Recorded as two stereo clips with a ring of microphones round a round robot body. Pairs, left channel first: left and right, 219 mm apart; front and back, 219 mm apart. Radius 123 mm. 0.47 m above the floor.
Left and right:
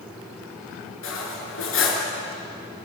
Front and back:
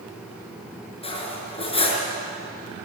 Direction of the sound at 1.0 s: 65° left.